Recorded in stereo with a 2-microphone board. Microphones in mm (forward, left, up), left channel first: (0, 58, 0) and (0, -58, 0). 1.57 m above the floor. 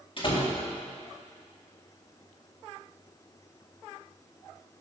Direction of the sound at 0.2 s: 45° left (ahead or behind).